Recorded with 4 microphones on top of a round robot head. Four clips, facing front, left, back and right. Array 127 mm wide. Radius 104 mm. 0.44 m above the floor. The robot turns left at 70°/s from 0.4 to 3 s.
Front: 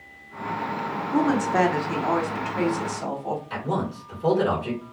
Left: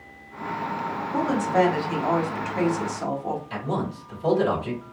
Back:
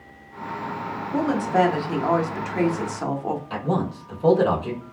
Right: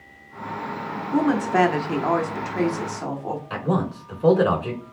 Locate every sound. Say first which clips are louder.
1.1 s a woman speaking: right 3 dB, even; 50° right, 1.2 m; by 3.4 s 175° left, 1.2 m
3.5 s a man speaking: right 4 dB, back 3 dB; 110° right, 2.5 m